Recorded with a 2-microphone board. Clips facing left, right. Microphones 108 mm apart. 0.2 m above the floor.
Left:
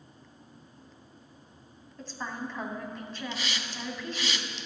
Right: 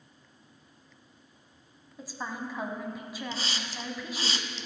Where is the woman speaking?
10° right (ahead or behind), 1.2 m.